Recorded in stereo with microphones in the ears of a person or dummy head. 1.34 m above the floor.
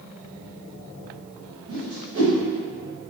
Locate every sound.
1.7 s a whoosh: 20° right (ahead or behind), 1.3 m